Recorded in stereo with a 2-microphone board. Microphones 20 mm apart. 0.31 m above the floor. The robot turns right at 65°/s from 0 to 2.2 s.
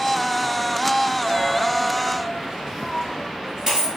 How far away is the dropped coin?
About 1.8 m.